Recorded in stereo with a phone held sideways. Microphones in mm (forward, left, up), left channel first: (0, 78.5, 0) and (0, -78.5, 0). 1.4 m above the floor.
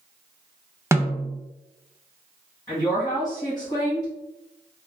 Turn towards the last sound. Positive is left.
turn(degrees=35)  # may be behind; listen again after turning